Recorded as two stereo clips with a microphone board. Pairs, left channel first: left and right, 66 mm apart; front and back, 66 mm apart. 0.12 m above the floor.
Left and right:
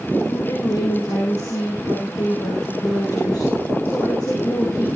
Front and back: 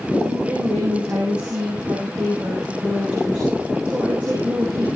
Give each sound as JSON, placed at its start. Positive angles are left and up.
{"t": 0.3, "sound": "a woman speaking", "azimuth_deg": 115, "distance_m": 8.5}